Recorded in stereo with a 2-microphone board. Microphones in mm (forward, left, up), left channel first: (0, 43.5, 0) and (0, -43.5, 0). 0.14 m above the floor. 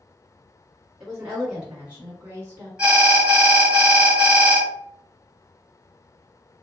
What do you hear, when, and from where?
1.0 s a woman speaking: 5° right (ahead or behind), 1.7 m; by 2.7 s 25° right (ahead or behind), 1.6 m
2.8 s an alarm: 10° right (ahead or behind), 1.9 m